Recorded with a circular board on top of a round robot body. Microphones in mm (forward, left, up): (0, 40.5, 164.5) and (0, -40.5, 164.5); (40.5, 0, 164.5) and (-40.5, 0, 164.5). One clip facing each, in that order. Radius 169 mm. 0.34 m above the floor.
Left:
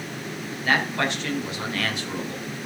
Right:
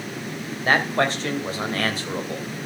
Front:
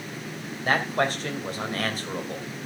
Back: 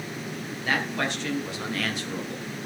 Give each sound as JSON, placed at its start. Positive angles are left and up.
{"t": 0.7, "sound": "a man speaking", "azimuth_deg": -40, "distance_m": 2.5}